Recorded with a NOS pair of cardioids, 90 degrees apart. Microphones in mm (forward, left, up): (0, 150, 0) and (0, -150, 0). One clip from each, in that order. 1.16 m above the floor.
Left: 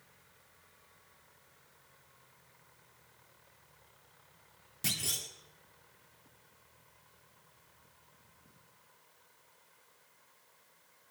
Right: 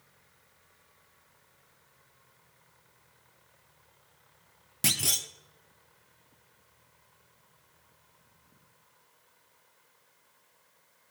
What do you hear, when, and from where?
4.8 s a clunk: 60° right, 1.6 m